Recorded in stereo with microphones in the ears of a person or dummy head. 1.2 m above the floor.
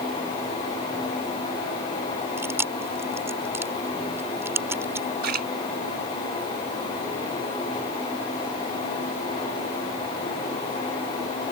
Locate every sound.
2.4 s chewing: 10° right (ahead or behind)
5.2 s a splash: 60° right (ahead or behind)